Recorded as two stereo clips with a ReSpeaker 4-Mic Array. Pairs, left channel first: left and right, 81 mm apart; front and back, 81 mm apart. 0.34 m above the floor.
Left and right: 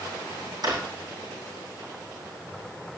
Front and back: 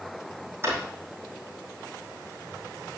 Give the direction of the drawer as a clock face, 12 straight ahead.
4 o'clock.